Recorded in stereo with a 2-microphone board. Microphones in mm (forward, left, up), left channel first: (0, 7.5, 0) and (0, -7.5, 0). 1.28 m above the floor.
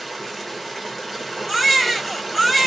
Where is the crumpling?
I don't hear crumpling.